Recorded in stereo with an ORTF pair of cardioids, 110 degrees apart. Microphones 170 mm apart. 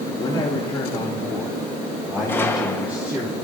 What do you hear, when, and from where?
0.1 s a man speaking: 25° left, 2.5 m; by 3.3 s 15° right, 3 m
2.3 s a gunshot: 15° left, 1.4 m